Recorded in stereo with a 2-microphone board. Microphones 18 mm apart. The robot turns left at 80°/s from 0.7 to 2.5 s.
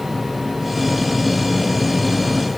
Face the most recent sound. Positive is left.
No sound to turn to.